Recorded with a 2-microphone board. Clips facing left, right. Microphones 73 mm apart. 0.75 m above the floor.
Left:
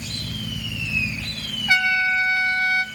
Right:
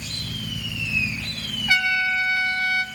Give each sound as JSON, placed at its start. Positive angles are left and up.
{"t": 1.7, "sound": "a trumpet", "side_deg": 25, "distance_m": 2.5}